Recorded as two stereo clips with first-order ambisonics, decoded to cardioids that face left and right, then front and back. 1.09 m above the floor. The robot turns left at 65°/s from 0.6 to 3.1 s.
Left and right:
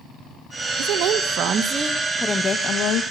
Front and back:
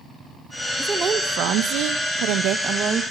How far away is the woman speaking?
About 1.3 m.